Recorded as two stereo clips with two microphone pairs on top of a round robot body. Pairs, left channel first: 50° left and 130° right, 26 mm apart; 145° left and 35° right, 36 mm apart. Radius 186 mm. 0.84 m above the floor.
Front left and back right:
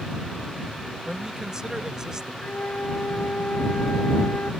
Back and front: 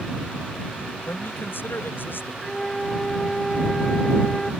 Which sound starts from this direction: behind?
A man speaking, at 1.1 s.